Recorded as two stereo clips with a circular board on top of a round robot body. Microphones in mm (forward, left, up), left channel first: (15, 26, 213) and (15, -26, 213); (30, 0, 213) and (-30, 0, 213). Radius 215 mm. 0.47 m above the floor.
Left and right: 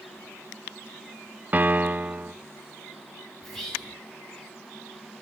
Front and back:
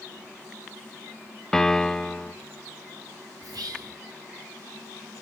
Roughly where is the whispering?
Behind.